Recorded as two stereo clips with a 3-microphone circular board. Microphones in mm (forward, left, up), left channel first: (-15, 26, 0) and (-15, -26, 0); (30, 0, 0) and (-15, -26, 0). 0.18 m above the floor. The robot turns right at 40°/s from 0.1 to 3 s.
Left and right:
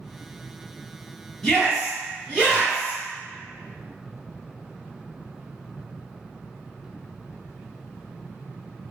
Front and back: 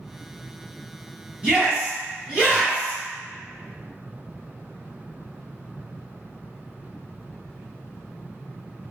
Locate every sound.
1.4 s a shout: 175° left, 1.6 m; by 3.0 s 125° right, 1.6 m